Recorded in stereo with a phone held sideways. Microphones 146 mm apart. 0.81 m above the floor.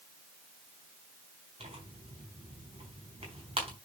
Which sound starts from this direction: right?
Tearing paper, at 1.6 s.